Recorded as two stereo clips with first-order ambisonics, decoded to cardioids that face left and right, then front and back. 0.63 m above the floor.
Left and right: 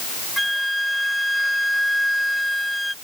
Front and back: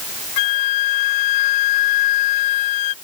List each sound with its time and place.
0.4 s a flute: straight ahead